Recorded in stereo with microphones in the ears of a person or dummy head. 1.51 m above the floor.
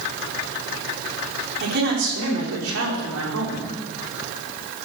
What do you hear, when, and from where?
1.6 s a man speaking: 50° right (ahead or behind), 4.5 m; by 3.7 s 90° right, 5 m